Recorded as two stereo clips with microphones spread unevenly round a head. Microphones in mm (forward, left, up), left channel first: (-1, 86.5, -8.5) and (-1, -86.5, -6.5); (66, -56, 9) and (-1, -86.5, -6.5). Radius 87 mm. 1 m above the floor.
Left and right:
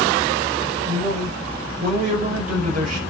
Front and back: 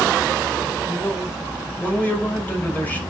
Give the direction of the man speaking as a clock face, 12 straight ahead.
1 o'clock.